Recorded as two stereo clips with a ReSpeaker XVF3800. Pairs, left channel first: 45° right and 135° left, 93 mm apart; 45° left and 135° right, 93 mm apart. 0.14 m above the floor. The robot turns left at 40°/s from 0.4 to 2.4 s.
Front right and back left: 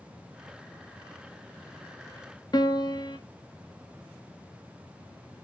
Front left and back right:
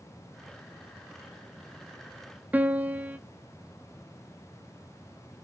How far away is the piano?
About 0.6 m.